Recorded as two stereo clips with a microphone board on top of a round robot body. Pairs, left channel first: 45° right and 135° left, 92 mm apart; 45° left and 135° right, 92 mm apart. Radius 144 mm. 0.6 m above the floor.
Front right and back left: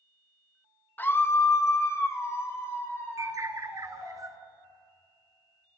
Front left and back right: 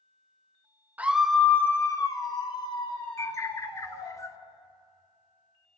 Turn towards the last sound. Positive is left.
turn(degrees=90)